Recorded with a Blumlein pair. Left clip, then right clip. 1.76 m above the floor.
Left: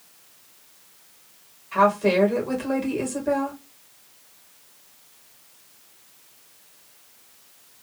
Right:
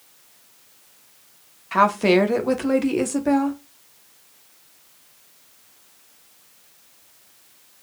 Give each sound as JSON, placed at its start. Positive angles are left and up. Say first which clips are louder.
{"t": 1.7, "sound": "a woman speaking", "louder": "right 2 dB", "azimuth_deg": -45, "distance_m": 1.0}